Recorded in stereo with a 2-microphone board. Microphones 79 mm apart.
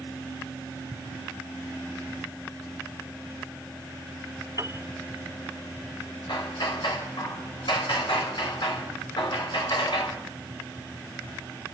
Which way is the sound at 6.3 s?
75° left (ahead or behind).